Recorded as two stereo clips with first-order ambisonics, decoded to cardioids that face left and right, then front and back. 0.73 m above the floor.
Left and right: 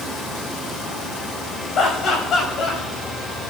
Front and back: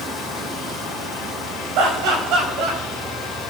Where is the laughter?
150° left, 5 m; by 2.8 s 145° left, 5.5 m.